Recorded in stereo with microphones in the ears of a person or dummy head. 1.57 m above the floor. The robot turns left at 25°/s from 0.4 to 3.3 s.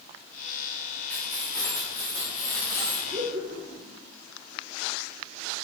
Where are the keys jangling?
170° left, 3 m; by 3.0 s 120° left, 3 m.